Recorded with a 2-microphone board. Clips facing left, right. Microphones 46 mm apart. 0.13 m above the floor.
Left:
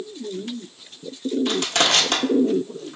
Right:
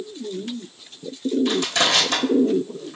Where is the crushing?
65° left (ahead or behind), 1.5 m.